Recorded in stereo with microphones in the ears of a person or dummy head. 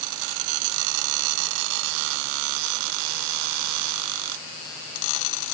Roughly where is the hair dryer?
No hair dryer in this recording.